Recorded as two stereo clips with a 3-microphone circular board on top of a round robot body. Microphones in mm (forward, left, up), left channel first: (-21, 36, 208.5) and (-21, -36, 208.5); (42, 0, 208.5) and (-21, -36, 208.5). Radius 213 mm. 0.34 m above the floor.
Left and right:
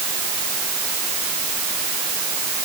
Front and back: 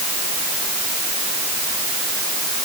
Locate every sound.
Only background noise.